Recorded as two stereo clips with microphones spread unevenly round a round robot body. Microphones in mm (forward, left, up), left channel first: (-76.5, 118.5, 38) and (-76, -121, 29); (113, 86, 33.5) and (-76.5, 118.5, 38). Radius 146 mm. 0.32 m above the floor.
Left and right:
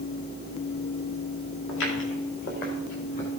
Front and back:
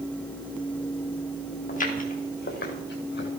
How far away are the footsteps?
About 5 m.